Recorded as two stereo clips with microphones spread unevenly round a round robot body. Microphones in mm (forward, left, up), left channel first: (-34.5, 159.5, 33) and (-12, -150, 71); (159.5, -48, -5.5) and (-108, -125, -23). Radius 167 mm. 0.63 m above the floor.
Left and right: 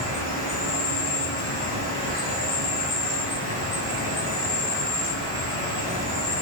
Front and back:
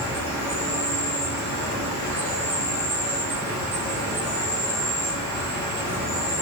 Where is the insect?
160° right, 1.5 m.